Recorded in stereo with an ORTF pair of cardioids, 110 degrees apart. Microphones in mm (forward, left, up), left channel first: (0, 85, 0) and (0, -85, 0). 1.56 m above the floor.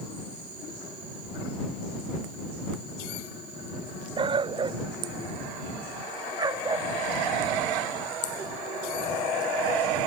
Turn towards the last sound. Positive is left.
turn(degrees=-25)